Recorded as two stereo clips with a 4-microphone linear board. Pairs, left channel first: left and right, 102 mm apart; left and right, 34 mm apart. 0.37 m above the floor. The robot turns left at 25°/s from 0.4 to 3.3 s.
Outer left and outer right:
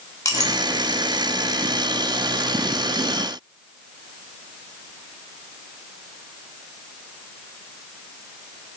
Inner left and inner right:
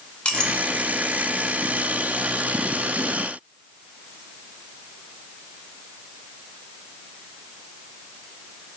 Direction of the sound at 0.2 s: 35° left (ahead or behind).